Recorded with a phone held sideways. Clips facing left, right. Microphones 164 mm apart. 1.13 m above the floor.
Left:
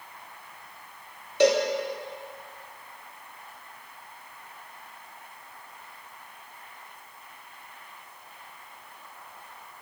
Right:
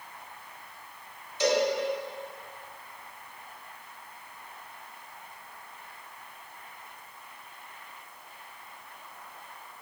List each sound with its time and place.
1.4 s a cowbell: 65° left (ahead or behind), 1.0 m